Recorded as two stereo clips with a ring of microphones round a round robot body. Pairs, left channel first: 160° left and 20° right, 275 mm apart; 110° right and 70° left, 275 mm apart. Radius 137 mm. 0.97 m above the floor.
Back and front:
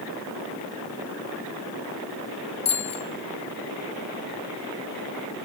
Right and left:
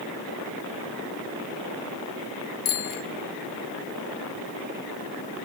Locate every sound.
2.6 s a bicycle bell: 135° right, 3 m